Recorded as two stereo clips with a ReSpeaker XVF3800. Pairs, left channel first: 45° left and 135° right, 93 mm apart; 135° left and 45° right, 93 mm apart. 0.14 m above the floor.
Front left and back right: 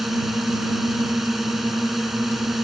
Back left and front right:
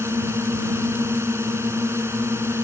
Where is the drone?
50° right.